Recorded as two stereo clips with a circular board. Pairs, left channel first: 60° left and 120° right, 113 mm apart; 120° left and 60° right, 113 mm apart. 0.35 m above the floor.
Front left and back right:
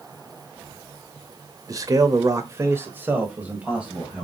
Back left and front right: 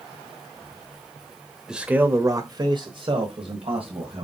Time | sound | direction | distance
1.7 | a man speaking | 140° right | 1.0 m